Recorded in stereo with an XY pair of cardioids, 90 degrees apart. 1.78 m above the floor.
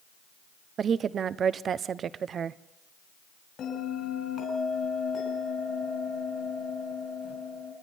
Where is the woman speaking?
60° right, 1.0 m.